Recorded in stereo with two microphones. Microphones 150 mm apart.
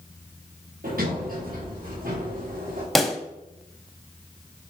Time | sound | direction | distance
0.8 | a sliding door | 70° right (ahead or behind) | 4.5 m
3.0 | a pop | centre (ahead or behind) | 0.8 m